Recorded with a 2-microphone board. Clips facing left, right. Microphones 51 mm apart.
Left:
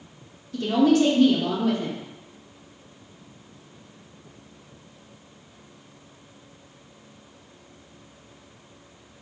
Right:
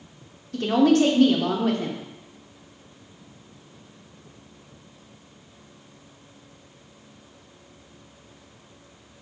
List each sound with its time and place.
0.5 s a woman speaking: 50° right (ahead or behind), 0.7 m